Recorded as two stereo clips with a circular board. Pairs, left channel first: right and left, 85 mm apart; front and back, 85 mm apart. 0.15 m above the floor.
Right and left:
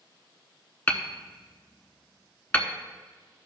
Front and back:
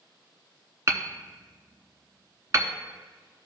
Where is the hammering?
150° right, 0.8 m.